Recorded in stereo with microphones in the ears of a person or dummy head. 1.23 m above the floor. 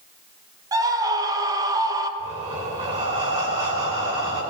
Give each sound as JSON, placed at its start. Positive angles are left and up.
{"t": 0.7, "sound": "a scream", "side_deg": -20, "distance_m": 1.3}
{"t": 2.2, "sound": "breathing", "side_deg": -25, "distance_m": 2.5}